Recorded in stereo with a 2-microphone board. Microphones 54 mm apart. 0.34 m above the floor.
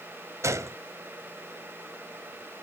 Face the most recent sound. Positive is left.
turn(degrees=-60)  # may be behind; listen again after turning